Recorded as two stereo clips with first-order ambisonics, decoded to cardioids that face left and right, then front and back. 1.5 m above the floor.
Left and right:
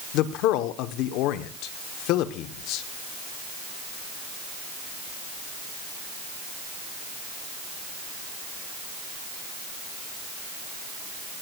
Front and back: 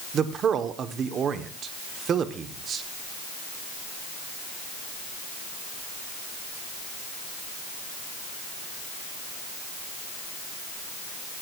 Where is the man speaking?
120° left, 1.0 m.